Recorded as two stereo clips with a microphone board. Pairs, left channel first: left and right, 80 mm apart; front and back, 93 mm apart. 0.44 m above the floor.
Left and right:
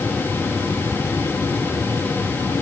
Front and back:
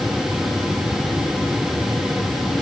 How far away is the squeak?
No squeak in this recording.